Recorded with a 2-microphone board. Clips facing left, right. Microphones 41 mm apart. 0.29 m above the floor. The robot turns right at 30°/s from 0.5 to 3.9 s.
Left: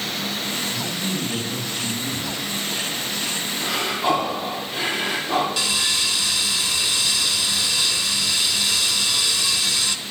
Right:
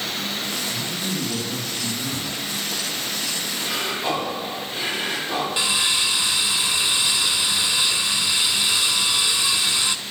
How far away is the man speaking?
About 5 m.